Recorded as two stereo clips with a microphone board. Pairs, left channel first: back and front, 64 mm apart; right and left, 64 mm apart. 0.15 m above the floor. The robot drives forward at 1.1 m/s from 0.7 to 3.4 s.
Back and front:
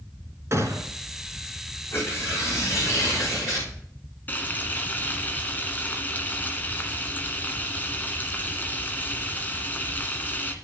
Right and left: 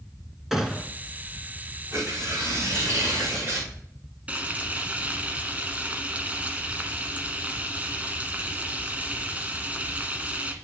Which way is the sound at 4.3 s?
140° left.